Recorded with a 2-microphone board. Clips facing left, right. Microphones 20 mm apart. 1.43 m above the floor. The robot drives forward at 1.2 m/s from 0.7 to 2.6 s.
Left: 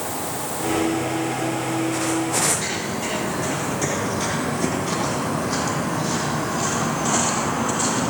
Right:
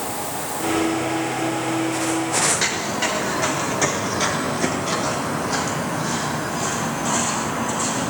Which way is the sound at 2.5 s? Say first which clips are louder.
Right 2 dB; 55° right (ahead or behind).